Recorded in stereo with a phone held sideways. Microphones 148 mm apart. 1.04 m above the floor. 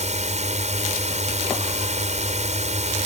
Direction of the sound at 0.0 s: 50° right (ahead or behind).